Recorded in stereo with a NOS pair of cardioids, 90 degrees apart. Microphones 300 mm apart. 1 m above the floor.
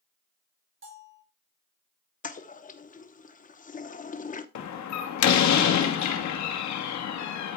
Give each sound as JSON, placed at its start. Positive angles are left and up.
{"t": 0.8, "sound": "a bell", "azimuth_deg": -45, "distance_m": 5.5}
{"t": 2.2, "sound": "a toilet flushing", "azimuth_deg": 30, "distance_m": 0.9}
{"t": 4.5, "sound": "a door slam", "azimuth_deg": 70, "distance_m": 1.4}